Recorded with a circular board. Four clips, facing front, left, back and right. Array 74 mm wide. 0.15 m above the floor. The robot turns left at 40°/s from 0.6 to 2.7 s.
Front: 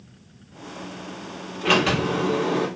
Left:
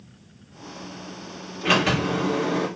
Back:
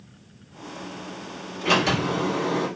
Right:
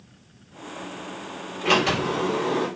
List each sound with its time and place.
1.6 s a sliding door: 35° left, 2.0 m; by 2.7 s 5° right, 2.0 m